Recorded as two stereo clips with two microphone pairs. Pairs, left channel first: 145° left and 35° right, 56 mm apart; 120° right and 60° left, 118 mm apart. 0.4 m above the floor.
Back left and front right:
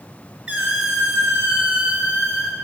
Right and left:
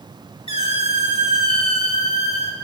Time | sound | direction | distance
0.5 | a squeak | 100° right | 1.1 m